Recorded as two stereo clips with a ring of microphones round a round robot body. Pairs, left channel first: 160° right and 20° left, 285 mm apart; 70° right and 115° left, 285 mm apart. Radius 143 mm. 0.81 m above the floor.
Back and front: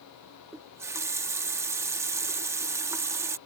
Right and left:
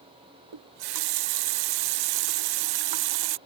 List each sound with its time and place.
0.5 s a running tap: 105° left